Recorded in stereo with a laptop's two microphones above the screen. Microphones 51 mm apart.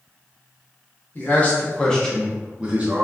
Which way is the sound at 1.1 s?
40° left (ahead or behind).